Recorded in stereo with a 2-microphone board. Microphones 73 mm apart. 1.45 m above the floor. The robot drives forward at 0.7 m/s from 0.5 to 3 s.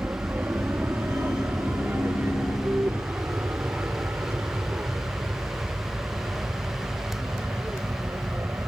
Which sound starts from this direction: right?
An aircraft, at 0.0 s.